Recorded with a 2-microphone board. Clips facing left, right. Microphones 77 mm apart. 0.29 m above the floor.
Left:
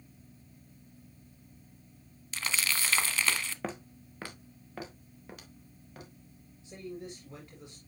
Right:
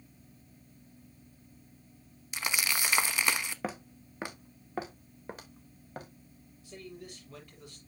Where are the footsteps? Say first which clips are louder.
Right 1 dB; 5° right (ahead or behind), 1.3 m; by 6.1 s 40° right (ahead or behind), 3 m.